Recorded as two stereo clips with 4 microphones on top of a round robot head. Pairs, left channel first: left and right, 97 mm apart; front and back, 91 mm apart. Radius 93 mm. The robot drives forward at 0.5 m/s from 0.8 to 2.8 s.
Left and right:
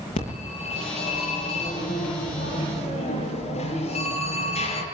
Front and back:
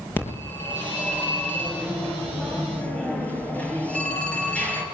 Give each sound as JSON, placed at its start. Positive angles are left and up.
{"t": 0.2, "sound": "a phone ringing", "azimuth_deg": 70, "distance_m": 9.0}